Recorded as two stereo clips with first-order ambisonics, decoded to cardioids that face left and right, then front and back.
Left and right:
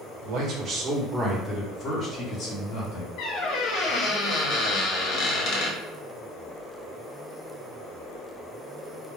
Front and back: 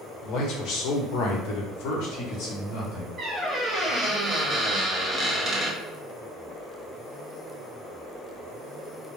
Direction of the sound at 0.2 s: 45° right.